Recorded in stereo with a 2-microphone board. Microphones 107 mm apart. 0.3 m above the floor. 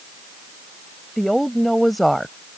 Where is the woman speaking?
Centre (ahead or behind).